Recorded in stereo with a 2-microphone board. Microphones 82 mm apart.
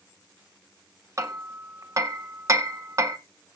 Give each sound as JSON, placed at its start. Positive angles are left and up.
{"t": 1.2, "sound": "hammering", "side_deg": -40, "distance_m": 1.1}